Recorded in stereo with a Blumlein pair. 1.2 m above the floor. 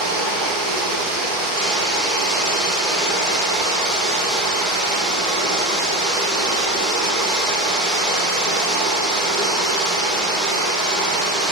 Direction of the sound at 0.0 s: 5° right.